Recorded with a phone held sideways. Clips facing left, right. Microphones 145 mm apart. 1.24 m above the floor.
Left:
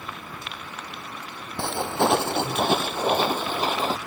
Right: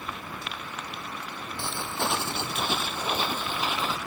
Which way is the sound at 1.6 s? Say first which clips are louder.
Left 9 dB; 65° left (ahead or behind).